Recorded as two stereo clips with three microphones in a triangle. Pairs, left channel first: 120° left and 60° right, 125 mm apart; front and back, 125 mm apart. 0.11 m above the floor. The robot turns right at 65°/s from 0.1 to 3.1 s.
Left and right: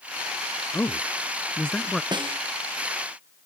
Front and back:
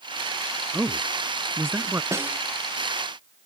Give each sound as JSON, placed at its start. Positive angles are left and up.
{"t": 0.7, "sound": "a man speaking", "azimuth_deg": 125}
{"t": 2.1, "sound": "a snare drum", "azimuth_deg": -115}